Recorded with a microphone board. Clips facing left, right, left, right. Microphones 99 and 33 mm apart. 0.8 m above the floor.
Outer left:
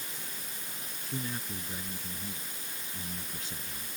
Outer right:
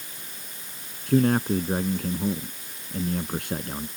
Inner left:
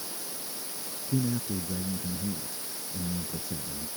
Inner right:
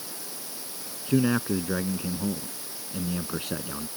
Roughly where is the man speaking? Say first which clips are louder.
Outer right 19 dB, inner right 7 dB; right.